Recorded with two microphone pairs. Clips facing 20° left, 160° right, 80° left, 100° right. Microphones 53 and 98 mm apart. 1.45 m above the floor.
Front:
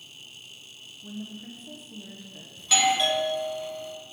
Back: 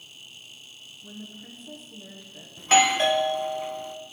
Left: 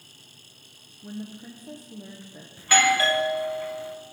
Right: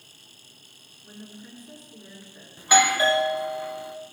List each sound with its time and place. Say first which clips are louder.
1.0 s a woman speaking: front 4 dB, left 7 dB; 105° left, 1.3 m
2.6 s a doorbell: back 4 dB, right 1 dB; 165° right, 0.9 m